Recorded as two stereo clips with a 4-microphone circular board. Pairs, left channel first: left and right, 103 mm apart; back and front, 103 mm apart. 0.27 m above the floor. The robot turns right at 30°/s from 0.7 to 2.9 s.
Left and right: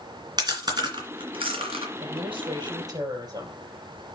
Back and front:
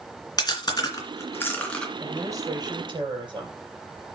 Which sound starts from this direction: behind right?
Chewing, at 0.4 s.